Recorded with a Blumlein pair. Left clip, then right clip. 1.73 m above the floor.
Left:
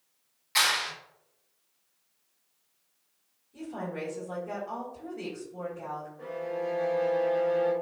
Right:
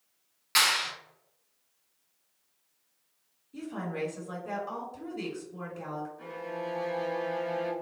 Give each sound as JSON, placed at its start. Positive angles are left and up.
{"t": 0.6, "sound": "a clap", "azimuth_deg": -60, "distance_m": 1.4}
{"t": 3.5, "sound": "a woman speaking", "azimuth_deg": -70, "distance_m": 1.7}
{"t": 6.2, "sound": "a violin", "azimuth_deg": -65, "distance_m": 1.2}